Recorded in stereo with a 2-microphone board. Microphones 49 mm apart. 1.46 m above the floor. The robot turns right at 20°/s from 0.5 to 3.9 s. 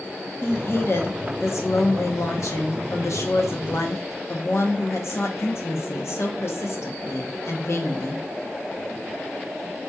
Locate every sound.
0.4 s a woman speaking: 50° left, 0.9 m; by 8.2 s 120° left, 0.9 m